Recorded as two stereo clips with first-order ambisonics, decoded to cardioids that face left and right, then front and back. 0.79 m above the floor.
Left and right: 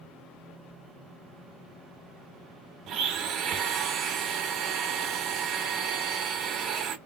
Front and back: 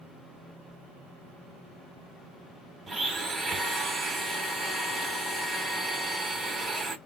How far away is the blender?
About 0.9 m.